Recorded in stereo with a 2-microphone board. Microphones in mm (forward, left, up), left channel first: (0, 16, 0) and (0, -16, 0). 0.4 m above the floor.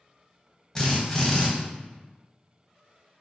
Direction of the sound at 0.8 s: 20° left (ahead or behind).